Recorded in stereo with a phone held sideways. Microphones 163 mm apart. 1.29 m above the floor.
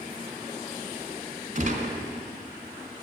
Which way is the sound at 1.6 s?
55° right (ahead or behind).